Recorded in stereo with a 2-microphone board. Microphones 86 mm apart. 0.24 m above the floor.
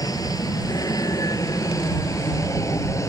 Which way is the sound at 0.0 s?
45° left (ahead or behind).